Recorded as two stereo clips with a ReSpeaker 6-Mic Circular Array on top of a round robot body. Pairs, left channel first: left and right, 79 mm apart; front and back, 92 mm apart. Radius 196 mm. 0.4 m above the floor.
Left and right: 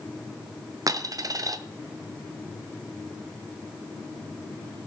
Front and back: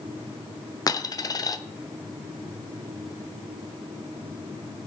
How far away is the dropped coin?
About 0.8 m.